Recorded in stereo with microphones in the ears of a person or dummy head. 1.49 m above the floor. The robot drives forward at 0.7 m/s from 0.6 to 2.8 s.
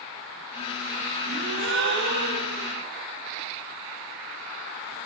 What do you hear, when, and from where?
1.3 s a gasp: 75° right (ahead or behind), 4 m; by 2.7 s 60° right (ahead or behind), 4.5 m